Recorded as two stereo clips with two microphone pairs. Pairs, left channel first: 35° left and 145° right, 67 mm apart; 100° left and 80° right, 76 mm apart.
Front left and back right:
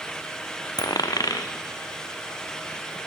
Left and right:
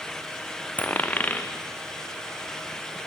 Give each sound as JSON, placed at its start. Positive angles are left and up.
{"t": 0.8, "sound": "a dropped coin", "azimuth_deg": 35, "distance_m": 1.4}